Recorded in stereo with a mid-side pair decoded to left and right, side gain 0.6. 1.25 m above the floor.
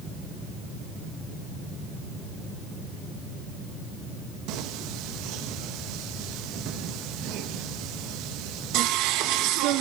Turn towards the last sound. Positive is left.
turn(degrees=-70)